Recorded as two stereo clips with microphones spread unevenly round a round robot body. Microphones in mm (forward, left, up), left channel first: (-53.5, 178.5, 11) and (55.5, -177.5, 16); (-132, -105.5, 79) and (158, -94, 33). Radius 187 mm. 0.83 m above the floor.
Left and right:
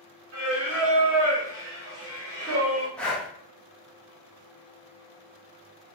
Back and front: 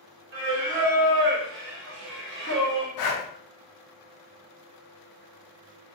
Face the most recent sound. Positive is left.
turn(degrees=-165)